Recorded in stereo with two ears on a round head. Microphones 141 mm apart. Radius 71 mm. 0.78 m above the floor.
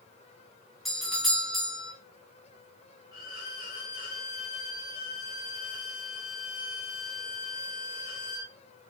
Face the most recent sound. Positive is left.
turn(degrees=55)  # may be behind; listen again after turning